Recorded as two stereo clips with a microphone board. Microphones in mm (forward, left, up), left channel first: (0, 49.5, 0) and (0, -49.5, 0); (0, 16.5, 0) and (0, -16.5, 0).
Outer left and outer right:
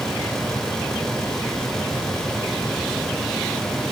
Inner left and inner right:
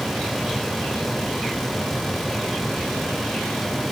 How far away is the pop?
No pop in this recording.